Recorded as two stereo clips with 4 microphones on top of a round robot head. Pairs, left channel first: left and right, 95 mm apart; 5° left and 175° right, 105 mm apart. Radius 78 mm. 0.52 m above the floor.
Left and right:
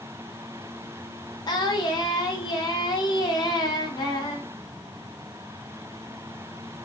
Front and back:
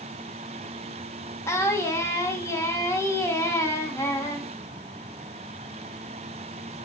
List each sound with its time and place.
1.5 s singing: 60° left, 0.9 m